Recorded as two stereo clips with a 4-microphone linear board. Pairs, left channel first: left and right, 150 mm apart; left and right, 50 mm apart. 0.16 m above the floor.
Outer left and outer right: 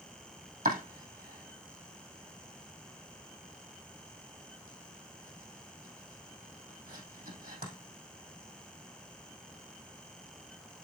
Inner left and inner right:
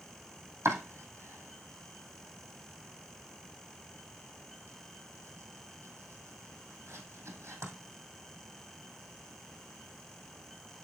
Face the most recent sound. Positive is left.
turn(degrees=-75)  # may be behind; listen again after turning